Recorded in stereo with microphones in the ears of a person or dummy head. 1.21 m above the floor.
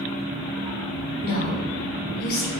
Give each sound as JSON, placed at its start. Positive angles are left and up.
{"t": 1.2, "sound": "a woman speaking", "side_deg": 55, "distance_m": 3.5}